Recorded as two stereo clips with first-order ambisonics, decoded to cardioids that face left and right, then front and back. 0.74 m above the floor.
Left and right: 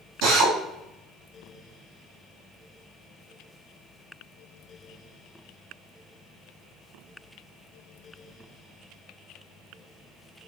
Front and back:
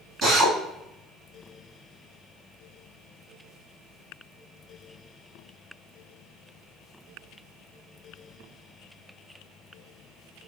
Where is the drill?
120° right, 3 m.